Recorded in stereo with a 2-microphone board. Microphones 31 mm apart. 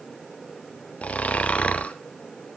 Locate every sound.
1.0 s snoring: 55° left (ahead or behind), 0.8 m